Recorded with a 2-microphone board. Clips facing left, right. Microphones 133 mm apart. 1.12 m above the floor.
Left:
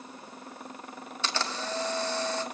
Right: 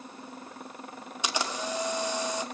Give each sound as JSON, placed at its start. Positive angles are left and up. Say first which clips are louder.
{"t": 1.2, "sound": "a camera shutter", "louder": "right 1 dB", "side_deg": -15, "distance_m": 2.0}